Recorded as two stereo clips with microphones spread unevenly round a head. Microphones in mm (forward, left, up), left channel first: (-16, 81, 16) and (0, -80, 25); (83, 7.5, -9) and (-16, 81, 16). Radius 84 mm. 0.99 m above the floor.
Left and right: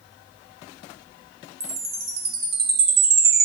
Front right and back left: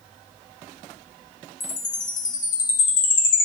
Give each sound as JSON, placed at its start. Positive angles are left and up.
{"t": 1.6, "sound": "a chime", "azimuth_deg": -50, "distance_m": 2.5}